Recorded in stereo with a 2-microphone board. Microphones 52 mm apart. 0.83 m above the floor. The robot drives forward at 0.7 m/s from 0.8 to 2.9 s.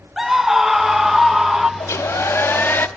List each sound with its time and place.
0.2 s a scream: 5° right (ahead or behind), 0.9 m
1.8 s a hair dryer: 70° left (ahead or behind), 0.9 m; by 2.9 s 40° left (ahead or behind), 1.2 m